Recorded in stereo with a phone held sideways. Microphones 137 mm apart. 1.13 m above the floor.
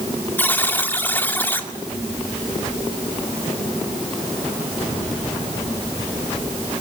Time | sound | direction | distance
0.4 | a buzzer | 15° left (ahead or behind) | 2.0 m